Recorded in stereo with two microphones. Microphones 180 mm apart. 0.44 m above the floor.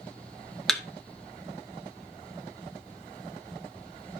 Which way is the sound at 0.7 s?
Centre (ahead or behind).